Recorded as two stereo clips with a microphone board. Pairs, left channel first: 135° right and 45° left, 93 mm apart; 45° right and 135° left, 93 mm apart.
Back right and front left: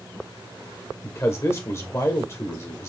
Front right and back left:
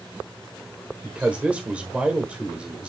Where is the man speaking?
160° right, 1.2 m.